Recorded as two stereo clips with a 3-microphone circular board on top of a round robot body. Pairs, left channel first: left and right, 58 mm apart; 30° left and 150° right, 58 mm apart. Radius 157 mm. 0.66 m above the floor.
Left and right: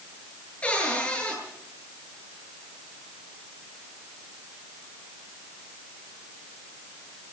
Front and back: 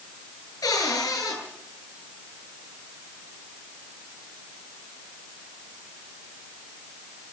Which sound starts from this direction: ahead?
A cupboard door, at 0.6 s.